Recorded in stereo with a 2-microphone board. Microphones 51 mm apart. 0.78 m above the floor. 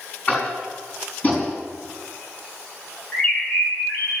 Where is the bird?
25° left (ahead or behind), 4 m.